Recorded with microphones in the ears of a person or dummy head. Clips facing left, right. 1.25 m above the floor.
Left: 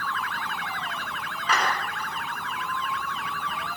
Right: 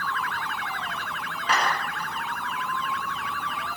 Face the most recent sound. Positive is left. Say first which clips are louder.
# right 1 dB
turn(degrees=-5)  # may be behind; listen again after turning